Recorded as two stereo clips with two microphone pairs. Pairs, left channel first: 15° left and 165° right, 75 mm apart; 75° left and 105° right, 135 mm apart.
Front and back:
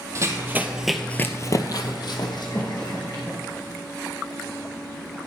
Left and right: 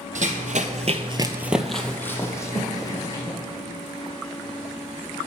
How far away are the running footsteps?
About 0.9 m.